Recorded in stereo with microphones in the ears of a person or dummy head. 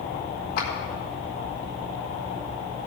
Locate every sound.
0.6 s a clap: 65° left (ahead or behind), 3 m